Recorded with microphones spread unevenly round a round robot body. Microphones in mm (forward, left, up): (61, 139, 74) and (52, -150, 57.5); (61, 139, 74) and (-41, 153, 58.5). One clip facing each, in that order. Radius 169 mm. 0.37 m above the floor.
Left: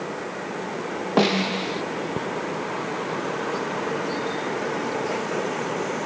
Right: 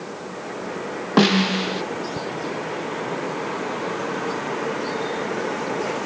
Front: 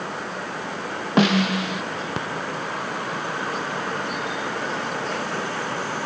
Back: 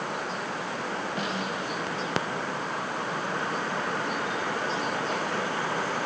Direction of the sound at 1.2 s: 25° right.